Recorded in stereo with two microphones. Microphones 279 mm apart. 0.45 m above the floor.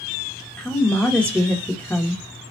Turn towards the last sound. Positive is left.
turn(degrees=5)  # may be behind; listen again after turning